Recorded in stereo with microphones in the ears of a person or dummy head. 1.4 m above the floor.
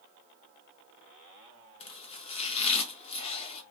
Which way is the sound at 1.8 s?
30° left (ahead or behind).